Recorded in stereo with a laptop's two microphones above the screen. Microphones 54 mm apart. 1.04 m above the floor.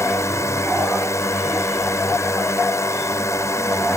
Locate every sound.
0.0 s a drone: 70° left (ahead or behind)